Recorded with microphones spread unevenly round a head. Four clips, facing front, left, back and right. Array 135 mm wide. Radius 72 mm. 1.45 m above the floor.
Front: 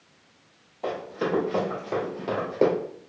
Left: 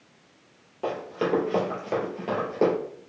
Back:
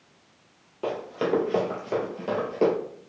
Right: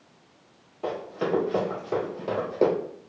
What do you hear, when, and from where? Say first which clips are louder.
0.8 s running footsteps: left 1 dB, back 1 dB; 145° left, 1.9 m; by 2.7 s 5° right, 1.4 m